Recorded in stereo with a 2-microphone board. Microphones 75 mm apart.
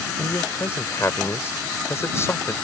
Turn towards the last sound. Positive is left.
turn(degrees=35)  # may be behind; listen again after turning